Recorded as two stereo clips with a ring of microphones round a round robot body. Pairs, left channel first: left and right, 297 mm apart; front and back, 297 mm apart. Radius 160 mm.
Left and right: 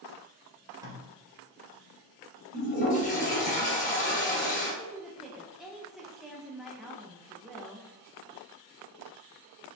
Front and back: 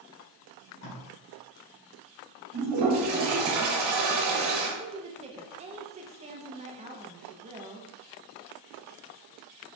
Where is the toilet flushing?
150° left, 2 m.